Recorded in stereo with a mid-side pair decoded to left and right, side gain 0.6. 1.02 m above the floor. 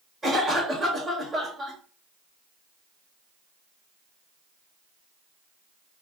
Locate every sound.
0.2 s a cough: 15° right, 1.5 m